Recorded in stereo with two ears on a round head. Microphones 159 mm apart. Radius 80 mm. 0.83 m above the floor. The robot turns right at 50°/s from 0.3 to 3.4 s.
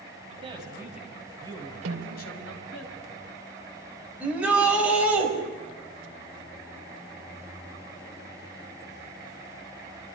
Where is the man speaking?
40° right, 4.5 m; by 2.9 s 90° left, 4.5 m.